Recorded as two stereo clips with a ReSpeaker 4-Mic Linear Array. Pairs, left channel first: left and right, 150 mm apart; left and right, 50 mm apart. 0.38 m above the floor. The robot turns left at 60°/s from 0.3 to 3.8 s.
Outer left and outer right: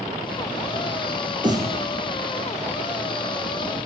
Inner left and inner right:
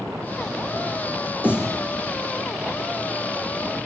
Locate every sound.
1.4 s a snare drum: 30° right (ahead or behind), 5 m; by 1.8 s 15° right (ahead or behind), 5 m